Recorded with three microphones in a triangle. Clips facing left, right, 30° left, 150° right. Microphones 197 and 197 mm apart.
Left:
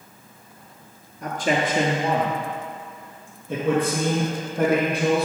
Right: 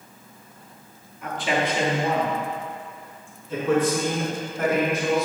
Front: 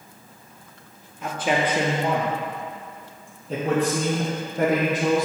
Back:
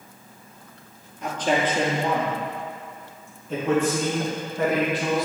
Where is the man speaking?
115° left, 1.8 m; by 5.3 s 70° left, 4 m.